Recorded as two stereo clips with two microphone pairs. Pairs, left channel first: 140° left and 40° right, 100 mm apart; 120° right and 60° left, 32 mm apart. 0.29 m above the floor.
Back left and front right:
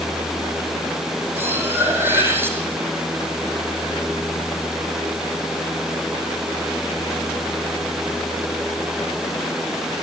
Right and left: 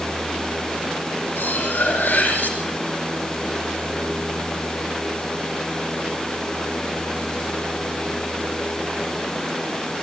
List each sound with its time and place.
1.4 s cutlery clinking: 110° right, 5.5 m